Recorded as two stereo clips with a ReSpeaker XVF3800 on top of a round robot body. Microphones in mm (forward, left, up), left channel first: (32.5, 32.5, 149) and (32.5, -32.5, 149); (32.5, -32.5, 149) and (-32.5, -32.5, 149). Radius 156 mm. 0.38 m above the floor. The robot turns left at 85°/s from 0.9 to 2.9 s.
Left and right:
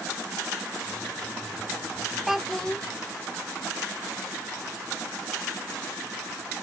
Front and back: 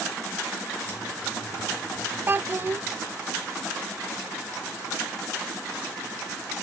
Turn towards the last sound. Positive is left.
turn(degrees=140)